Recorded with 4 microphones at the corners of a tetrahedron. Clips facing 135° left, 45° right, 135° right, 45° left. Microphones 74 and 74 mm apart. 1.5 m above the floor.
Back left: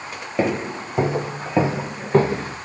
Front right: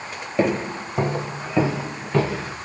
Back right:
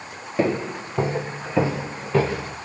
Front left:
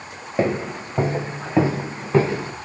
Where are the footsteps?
60° left, 1.5 m; by 2.6 s 100° left, 2 m.